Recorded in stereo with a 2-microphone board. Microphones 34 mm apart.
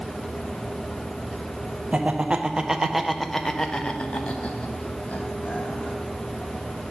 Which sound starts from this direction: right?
Laughter, at 1.9 s.